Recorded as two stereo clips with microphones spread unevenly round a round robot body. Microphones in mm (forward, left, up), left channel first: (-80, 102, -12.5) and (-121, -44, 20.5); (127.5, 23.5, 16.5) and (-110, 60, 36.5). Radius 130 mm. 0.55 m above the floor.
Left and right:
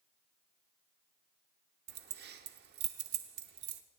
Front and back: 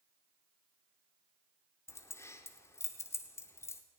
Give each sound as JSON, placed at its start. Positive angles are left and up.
{"t": 1.9, "sound": "keys jangling", "azimuth_deg": -85, "distance_m": 0.7}